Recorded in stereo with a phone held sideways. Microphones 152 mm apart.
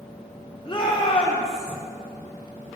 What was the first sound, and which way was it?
A shout, 35° left (ahead or behind).